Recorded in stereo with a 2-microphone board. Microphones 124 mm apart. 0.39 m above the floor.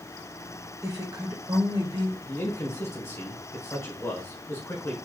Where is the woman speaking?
30° right (ahead or behind), 1.6 m; by 2.2 s 45° right (ahead or behind), 1.7 m.